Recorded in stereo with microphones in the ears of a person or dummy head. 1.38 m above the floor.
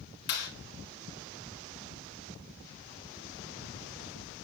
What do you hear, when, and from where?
0.3 s a clap: 55° left (ahead or behind), 9 m